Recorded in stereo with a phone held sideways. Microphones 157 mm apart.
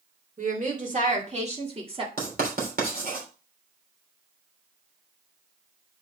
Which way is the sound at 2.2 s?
75° right (ahead or behind).